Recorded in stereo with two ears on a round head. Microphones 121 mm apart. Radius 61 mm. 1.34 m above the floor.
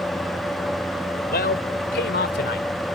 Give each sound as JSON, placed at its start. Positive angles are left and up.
{"t": 1.3, "sound": "a man speaking", "side_deg": 75}